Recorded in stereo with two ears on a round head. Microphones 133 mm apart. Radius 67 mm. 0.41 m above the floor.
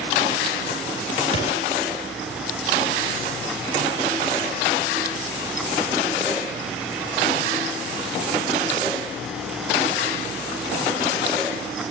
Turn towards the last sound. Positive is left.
turn(degrees=55)  # may be behind; listen again after turning